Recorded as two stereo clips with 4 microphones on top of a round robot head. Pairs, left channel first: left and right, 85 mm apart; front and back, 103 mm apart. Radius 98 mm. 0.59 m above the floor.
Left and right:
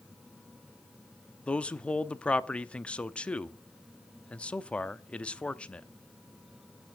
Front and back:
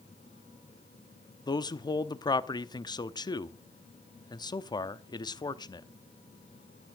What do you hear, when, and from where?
1.5 s a man speaking: 20° left, 0.9 m